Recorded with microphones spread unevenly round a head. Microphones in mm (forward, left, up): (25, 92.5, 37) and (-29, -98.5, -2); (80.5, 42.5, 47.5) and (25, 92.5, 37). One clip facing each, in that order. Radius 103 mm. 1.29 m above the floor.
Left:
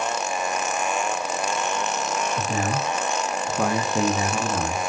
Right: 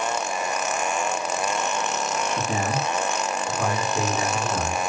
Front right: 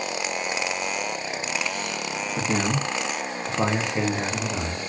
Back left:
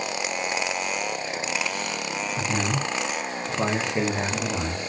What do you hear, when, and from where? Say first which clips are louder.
2.4 s a man speaking: even, front right 3 dB; 35° right, 0.8 m; by 4.8 s 75° left, 1.2 m